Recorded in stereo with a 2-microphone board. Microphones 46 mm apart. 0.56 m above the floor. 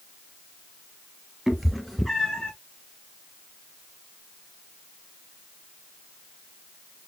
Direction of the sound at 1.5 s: 5° right (ahead or behind).